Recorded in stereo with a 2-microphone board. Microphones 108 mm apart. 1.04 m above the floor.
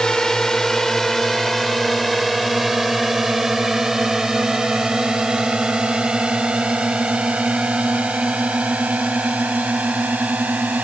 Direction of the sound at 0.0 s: 5° left (ahead or behind).